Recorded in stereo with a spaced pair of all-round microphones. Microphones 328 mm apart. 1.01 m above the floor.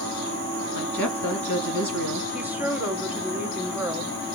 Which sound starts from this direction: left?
A woman speaking, at 0.8 s.